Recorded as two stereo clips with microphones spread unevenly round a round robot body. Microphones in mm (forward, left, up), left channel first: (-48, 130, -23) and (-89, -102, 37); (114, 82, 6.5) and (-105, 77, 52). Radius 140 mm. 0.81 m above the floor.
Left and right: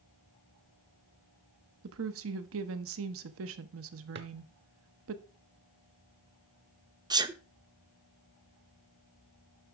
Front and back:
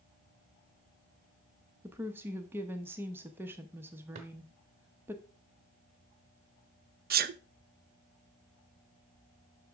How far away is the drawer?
About 0.9 m.